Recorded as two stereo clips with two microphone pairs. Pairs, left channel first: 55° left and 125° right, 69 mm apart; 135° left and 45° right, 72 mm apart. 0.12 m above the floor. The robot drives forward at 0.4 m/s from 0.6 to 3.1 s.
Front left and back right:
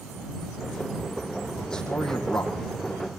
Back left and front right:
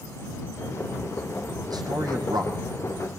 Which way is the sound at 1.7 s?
25° right.